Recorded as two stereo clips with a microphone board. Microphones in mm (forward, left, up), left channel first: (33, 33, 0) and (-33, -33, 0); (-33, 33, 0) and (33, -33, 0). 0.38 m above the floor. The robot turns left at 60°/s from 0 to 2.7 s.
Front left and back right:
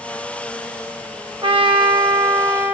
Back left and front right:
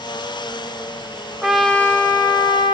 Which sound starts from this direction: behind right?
A trumpet, at 1.4 s.